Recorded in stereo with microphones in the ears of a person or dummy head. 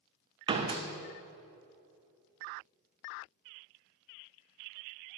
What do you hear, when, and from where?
0.5 s a door slam: 35° right (ahead or behind), 0.6 m